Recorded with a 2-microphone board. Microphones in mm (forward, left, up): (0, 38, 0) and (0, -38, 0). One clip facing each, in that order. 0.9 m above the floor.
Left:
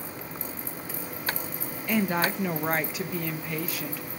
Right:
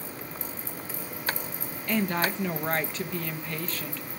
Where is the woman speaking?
10° left (ahead or behind), 0.8 m.